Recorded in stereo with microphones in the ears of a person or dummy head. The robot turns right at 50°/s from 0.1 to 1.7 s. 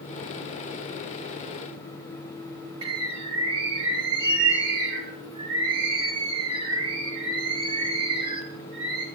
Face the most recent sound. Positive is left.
turn(degrees=-25)  # may be behind; listen again after turning